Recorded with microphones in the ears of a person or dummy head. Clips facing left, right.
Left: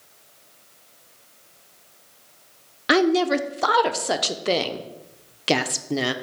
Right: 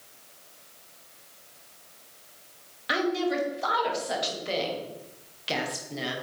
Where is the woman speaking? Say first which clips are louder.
Left 8 dB; 65° left (ahead or behind), 0.6 m.